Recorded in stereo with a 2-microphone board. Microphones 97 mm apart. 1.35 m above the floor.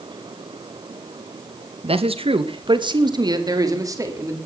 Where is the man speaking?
80° right, 1.9 m; by 4.4 s 30° right (ahead or behind), 4.5 m.